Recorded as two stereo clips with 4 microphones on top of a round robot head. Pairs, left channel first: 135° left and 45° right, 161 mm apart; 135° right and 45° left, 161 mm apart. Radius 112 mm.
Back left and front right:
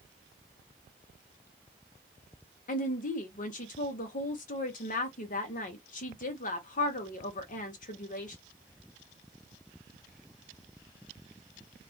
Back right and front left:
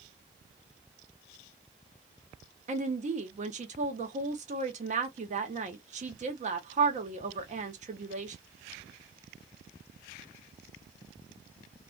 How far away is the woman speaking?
About 0.9 m.